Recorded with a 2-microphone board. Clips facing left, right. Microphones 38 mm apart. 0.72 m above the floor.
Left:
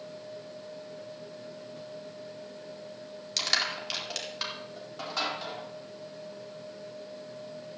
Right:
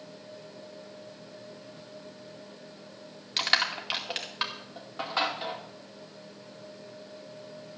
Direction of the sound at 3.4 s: 25° right (ahead or behind).